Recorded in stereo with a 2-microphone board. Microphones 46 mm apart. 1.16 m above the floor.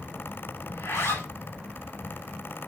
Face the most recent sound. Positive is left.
turn(degrees=85)